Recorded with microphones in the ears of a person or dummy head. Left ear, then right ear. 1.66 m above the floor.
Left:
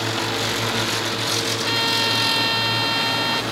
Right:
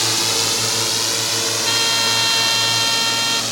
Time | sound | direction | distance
0.0 | a drone | 80° right | ?
1.6 | a trumpet | 20° right (ahead or behind) | ?